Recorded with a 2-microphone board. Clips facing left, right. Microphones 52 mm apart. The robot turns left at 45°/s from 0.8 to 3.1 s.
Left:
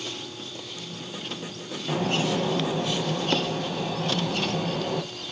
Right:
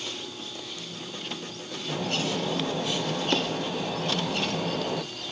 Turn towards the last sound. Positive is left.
turn(degrees=0)